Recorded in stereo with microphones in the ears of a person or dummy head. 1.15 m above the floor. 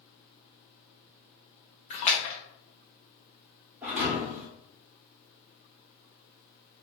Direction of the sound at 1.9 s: 30° left (ahead or behind).